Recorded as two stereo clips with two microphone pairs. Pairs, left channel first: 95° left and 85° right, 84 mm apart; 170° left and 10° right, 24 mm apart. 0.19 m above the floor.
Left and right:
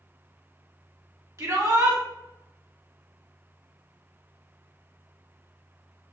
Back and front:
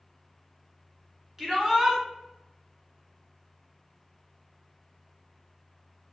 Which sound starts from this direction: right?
A shout, at 1.4 s.